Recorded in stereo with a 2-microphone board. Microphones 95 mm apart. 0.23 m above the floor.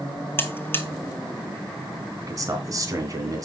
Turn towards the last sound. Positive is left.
turn(degrees=-40)  # may be behind; listen again after turning